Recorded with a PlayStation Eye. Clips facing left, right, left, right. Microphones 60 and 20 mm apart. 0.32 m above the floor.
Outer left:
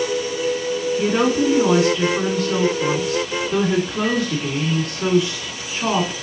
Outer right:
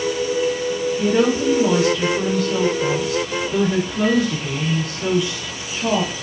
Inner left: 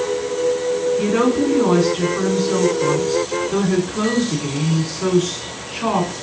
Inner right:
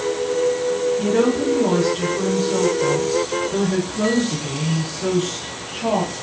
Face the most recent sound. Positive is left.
turn(degrees=65)  # may be behind; listen again after turning